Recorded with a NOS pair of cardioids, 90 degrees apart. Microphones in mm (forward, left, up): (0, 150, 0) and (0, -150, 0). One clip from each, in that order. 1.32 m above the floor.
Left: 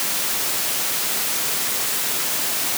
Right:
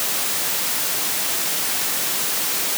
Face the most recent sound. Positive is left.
No sound to turn to.